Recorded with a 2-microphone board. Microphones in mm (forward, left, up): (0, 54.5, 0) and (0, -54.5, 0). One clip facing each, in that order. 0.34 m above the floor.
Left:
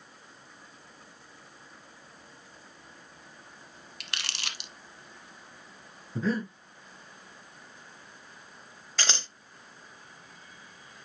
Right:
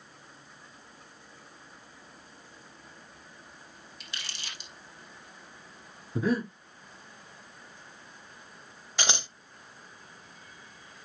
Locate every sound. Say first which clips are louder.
4.0 s crumpling: left 4 dB; 80° left, 1.3 m
6.2 s breathing: right 2 dB; 15° right (ahead or behind), 2.5 m
9.0 s scissors: right 2 dB; 15° right (ahead or behind), 0.7 m